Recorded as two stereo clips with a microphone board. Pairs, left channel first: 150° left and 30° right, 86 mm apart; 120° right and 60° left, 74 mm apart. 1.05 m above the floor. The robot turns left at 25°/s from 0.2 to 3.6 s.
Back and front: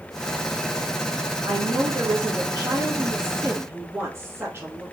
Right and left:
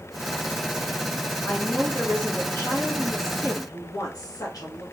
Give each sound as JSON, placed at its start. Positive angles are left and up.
{"t": 1.4, "sound": "a woman speaking", "azimuth_deg": -35, "distance_m": 1.5}